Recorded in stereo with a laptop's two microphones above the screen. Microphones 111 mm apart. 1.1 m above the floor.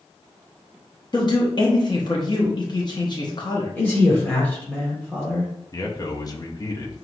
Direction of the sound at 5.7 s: 35° left (ahead or behind).